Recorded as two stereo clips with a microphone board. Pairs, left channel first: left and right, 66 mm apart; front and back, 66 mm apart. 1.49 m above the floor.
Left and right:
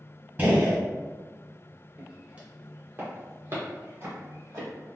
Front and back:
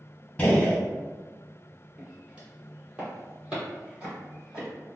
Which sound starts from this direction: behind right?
Footsteps, at 2.0 s.